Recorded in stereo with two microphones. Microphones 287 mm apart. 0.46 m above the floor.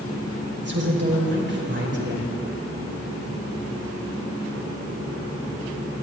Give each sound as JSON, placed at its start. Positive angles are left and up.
{"t": 0.6, "sound": "a woman speaking", "side_deg": -40, "distance_m": 1.6}